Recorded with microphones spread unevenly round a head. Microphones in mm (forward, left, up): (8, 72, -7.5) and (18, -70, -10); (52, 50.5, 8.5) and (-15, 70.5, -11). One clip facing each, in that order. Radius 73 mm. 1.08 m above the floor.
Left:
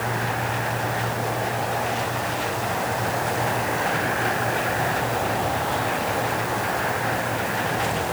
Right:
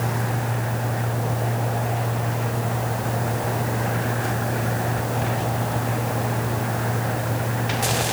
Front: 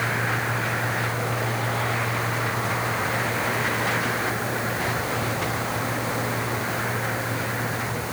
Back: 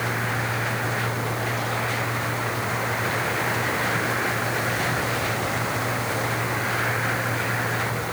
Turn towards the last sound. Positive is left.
No sound to turn to.